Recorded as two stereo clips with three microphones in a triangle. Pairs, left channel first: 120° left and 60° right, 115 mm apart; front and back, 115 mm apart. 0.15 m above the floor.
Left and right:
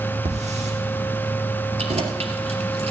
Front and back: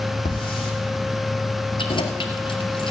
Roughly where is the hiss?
Ahead right.